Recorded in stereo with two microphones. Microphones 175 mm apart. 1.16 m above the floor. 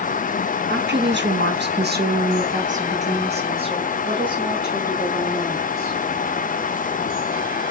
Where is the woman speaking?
70° right (ahead or behind), 0.9 m; by 6.0 s 20° right (ahead or behind), 2.5 m.